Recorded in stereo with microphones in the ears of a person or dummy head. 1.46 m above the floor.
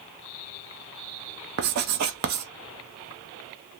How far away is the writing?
About 0.5 m.